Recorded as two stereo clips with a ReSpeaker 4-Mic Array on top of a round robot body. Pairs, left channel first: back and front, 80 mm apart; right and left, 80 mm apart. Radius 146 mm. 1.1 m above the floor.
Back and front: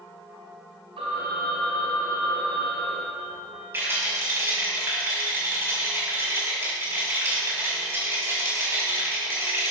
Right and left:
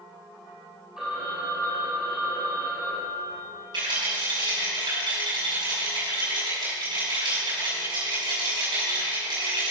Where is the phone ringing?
10° left, 3 m.